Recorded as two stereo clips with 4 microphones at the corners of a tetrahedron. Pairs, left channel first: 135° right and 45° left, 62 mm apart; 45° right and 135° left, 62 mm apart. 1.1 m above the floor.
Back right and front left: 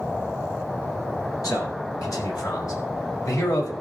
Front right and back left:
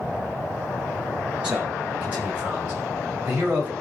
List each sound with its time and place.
1.4 s a man speaking: 155° right, 7.5 m; by 3.7 s 165° right, 5 m